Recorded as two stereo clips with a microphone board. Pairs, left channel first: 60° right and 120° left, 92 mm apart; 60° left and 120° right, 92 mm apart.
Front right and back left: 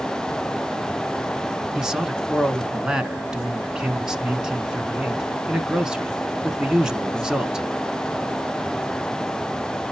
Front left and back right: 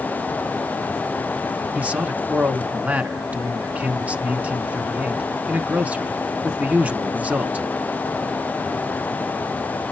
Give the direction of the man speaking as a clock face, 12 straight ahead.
6 o'clock.